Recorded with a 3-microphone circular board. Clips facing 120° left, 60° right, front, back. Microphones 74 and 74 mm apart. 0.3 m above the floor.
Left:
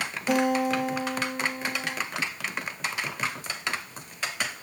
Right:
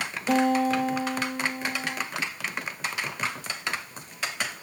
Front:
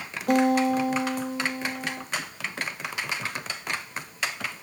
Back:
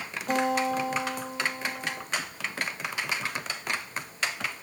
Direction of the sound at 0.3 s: 40° left.